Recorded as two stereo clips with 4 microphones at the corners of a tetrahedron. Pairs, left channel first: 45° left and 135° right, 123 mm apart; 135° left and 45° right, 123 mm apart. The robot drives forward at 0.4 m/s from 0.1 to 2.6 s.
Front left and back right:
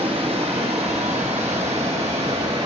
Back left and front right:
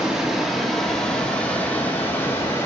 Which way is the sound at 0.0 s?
130° right.